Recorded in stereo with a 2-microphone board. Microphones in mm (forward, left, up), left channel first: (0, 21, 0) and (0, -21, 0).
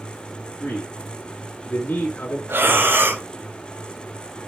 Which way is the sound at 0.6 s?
45° left (ahead or behind).